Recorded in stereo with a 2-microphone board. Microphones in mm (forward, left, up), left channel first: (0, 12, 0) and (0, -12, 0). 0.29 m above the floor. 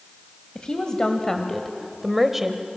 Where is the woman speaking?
40° left (ahead or behind), 1.9 m; by 2.7 s 20° right (ahead or behind), 1.6 m.